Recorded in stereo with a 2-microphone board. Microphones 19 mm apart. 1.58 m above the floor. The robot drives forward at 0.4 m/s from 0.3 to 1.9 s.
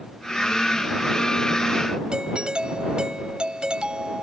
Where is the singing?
No singing in this recording.